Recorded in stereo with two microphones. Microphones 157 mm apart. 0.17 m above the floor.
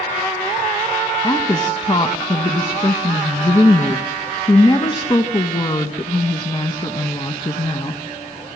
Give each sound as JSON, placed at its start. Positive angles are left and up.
{"t": 1.2, "sound": "a woman speaking", "side_deg": 30, "distance_m": 1.4}